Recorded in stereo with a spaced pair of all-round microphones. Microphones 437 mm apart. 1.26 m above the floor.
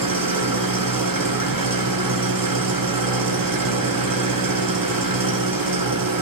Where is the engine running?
50° right (ahead or behind), 0.8 m.